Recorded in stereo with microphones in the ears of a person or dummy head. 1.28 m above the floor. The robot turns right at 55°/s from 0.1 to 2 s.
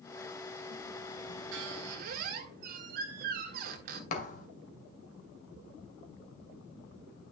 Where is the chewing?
No chewing in this recording.